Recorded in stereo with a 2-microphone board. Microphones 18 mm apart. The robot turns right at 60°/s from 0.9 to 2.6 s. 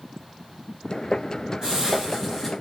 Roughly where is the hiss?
Ahead right.